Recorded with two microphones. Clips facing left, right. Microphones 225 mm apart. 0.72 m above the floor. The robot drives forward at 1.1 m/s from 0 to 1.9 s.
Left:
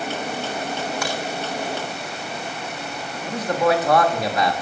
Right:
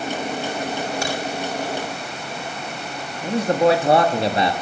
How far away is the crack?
About 8 m.